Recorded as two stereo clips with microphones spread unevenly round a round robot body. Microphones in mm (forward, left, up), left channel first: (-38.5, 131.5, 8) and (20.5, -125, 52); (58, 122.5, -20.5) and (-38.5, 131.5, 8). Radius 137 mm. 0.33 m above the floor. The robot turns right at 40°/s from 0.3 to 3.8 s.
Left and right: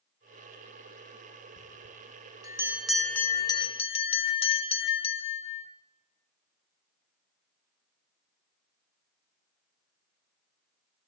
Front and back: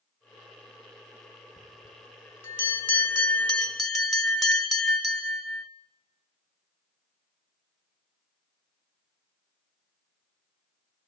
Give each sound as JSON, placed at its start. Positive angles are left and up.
{"t": 1.6, "sound": "a bell", "azimuth_deg": -30, "distance_m": 1.1}